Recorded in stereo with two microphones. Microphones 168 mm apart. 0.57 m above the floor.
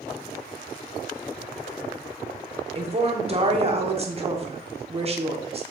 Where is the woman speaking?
35° right (ahead or behind), 1.4 m.